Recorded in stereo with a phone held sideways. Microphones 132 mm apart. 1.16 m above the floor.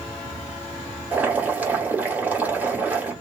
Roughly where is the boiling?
Centre.